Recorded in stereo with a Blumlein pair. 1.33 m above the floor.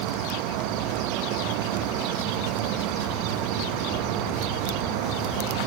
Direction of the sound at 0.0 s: 40° right.